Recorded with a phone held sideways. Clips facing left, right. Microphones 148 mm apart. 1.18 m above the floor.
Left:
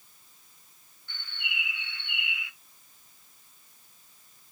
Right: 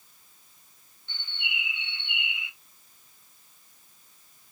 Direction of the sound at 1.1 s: 25° right (ahead or behind).